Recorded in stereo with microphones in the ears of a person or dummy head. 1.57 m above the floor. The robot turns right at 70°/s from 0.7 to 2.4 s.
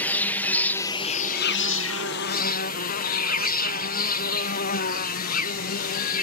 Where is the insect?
10° left; by 6.2 s 125° left.